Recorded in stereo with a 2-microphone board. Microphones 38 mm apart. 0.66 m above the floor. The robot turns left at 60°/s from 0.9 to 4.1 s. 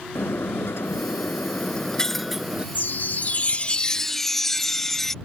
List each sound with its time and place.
0.1 s breaking glass: 80° left; by 2.6 s 25° right
2.8 s a chime: 90° left; by 5.1 s 10° left